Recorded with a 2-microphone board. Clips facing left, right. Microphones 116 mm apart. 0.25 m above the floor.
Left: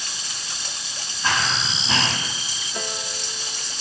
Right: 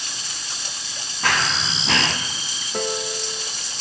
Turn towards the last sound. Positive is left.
turn(degrees=-60)  # may be behind; listen again after turning